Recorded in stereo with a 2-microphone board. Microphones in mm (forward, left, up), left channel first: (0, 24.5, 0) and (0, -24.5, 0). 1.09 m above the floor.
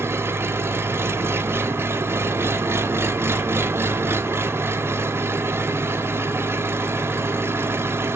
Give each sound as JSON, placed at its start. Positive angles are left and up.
{"t": 0.0, "sound": "an engine running", "side_deg": -55, "distance_m": 0.7}